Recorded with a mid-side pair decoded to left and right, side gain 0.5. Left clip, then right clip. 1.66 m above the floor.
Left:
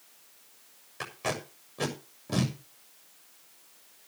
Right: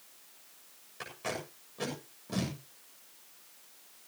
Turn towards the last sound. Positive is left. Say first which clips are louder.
# left 5 dB
turn(degrees=40)